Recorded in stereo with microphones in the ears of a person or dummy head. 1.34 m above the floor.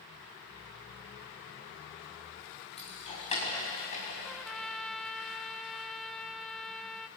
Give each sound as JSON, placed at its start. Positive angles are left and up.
{"t": 2.8, "sound": "keys jangling", "side_deg": 35, "distance_m": 5.5}
{"t": 4.2, "sound": "a trumpet", "side_deg": 5, "distance_m": 0.6}